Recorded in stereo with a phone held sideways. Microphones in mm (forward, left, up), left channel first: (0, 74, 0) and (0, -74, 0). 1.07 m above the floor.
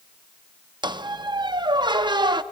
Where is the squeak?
30° right (ahead or behind), 0.5 m.